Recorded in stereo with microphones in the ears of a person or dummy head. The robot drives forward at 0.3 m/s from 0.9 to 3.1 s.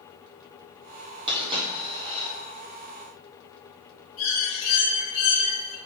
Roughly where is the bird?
Left.